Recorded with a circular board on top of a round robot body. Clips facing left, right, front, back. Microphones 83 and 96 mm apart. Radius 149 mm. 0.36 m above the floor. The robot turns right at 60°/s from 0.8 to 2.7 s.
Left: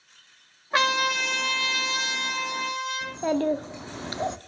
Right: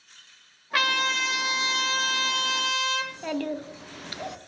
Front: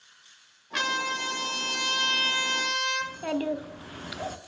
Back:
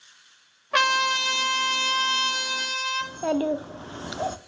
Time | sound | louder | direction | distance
0.7 | a trumpet | left 2 dB, back 7 dB | 155° left | 1.2 m
3.0 | a child speaking | left 5 dB, back 4 dB | 135° left | 0.7 m